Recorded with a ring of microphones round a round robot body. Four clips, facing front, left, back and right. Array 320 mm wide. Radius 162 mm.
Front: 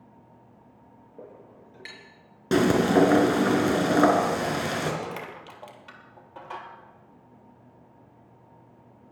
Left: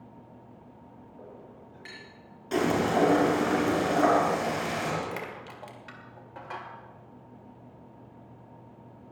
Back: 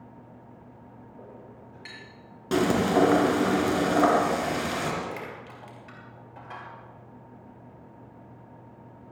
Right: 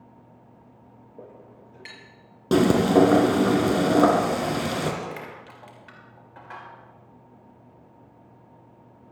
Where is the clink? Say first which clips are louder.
Right 3 dB, front 2 dB; 50° right, 5.5 m.